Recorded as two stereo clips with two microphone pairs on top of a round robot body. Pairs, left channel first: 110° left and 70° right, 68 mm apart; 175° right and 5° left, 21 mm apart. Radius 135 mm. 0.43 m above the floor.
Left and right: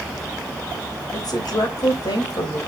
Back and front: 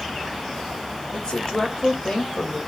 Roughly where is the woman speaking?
Behind left.